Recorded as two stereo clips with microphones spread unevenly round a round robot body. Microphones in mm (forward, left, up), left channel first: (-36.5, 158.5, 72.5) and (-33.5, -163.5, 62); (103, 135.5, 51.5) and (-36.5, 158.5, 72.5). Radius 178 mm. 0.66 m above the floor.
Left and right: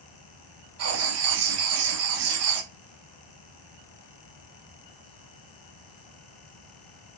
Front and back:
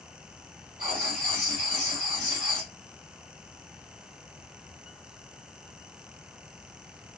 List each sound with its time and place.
0.8 s writing: 130° right, 0.8 m